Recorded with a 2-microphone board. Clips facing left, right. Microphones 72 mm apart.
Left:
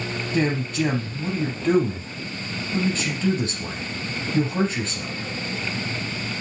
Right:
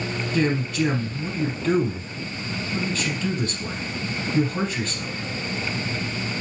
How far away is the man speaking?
About 4.5 m.